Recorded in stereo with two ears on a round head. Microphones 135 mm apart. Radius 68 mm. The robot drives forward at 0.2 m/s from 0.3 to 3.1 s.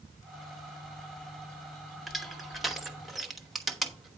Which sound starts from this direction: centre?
Crushing, at 2.1 s.